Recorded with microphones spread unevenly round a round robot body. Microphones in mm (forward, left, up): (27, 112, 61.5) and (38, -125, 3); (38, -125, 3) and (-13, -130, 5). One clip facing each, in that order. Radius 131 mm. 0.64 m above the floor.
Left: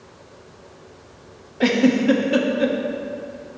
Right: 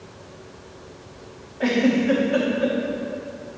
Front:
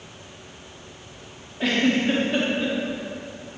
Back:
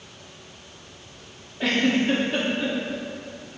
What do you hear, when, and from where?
1.6 s a giggle: 95° left, 1.0 m